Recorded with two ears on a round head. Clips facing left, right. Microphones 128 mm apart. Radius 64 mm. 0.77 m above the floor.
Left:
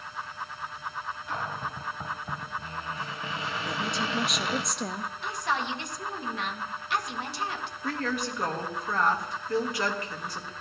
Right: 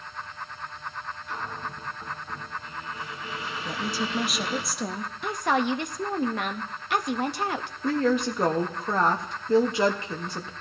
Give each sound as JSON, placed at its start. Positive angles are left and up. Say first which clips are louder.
{"t": 1.3, "sound": "a cupboard door", "louder": "left 1 dB", "side_deg": 60, "distance_m": 1.9}
{"t": 3.6, "sound": "a woman speaking", "louder": "right 2 dB", "side_deg": 0, "distance_m": 0.6}
{"t": 5.2, "sound": "a woman speaking", "louder": "right 7 dB", "side_deg": -45, "distance_m": 0.7}
{"t": 7.8, "sound": "a woman speaking", "louder": "right 8 dB", "side_deg": -20, "distance_m": 0.9}